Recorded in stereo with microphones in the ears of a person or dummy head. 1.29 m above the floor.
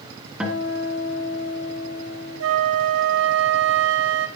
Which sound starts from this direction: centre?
A guitar, at 0.4 s.